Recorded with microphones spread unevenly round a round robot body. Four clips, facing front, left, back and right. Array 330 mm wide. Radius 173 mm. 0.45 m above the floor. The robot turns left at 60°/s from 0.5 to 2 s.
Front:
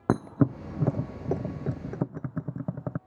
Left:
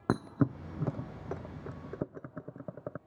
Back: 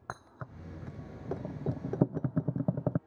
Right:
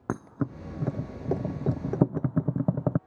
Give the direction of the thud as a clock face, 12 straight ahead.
12 o'clock.